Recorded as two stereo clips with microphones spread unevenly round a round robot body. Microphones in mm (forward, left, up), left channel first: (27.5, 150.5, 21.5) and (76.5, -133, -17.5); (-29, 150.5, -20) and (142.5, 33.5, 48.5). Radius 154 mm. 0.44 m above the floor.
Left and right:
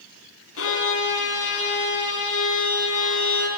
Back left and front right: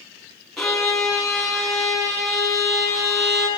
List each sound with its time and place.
0.6 s a violin: 60° left, 5 m